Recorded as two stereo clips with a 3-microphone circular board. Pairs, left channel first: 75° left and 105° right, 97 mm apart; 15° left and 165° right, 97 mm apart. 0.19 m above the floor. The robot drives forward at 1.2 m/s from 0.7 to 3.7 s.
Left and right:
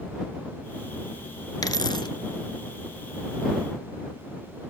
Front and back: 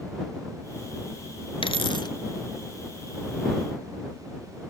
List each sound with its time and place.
1.6 s a dropped coin: 30° left, 1.3 m; by 2.1 s 50° left, 0.9 m